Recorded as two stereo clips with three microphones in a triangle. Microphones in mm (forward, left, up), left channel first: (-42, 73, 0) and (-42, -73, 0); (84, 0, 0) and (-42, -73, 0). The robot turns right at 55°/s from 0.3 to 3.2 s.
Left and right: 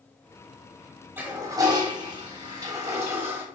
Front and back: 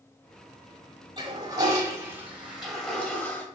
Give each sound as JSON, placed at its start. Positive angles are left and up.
{"t": 1.2, "sound": "a toilet flushing", "azimuth_deg": -150, "distance_m": 1.3}